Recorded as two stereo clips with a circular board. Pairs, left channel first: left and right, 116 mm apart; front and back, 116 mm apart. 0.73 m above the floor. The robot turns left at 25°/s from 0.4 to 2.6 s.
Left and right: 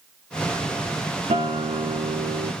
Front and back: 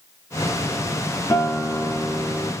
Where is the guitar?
65° right, 0.6 m; by 2.5 s 95° right, 0.6 m.